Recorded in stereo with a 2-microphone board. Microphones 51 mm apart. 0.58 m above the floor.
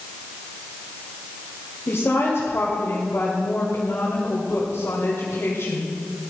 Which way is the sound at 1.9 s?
50° left (ahead or behind).